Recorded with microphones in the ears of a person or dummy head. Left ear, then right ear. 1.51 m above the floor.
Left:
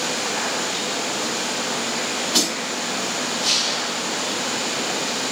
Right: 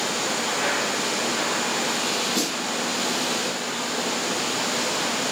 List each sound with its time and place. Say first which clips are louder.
2.3 s a snare drum: left 4 dB; 50° left (ahead or behind), 4 m